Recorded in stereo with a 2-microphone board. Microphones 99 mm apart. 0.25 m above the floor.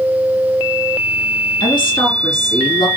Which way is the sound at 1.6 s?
60° left (ahead or behind).